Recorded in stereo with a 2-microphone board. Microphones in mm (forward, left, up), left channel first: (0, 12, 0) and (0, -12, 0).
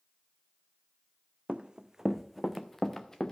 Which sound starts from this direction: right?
Running footsteps, at 1.5 s.